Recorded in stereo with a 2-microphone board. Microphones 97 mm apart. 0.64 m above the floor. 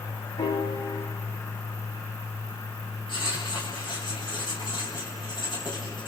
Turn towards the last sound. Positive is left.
turn(degrees=55)  # may be behind; listen again after turning